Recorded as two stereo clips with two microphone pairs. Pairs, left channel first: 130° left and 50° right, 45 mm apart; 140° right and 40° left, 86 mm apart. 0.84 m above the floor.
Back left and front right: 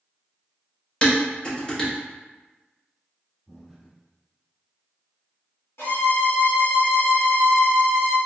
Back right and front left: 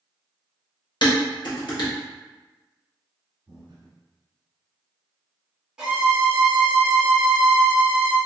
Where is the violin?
120° left, 1.6 m.